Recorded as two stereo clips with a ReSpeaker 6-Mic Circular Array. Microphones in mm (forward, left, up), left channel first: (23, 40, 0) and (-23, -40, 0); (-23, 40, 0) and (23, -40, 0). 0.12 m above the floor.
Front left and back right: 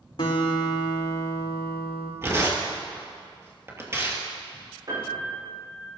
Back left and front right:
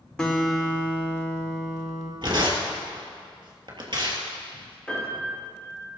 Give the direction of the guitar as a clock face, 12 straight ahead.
11 o'clock.